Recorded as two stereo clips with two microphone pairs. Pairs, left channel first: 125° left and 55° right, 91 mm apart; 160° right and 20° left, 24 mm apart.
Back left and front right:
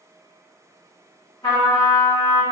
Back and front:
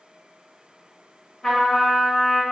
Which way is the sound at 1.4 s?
130° left.